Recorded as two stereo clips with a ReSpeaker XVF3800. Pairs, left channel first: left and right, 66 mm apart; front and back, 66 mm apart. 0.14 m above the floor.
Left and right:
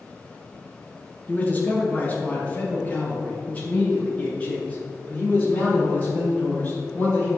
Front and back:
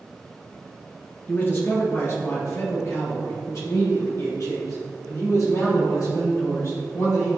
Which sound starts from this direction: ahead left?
A man speaking, at 1.3 s.